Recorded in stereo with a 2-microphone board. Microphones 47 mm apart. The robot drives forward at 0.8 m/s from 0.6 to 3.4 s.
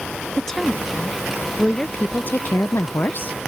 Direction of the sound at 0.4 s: 15° left (ahead or behind).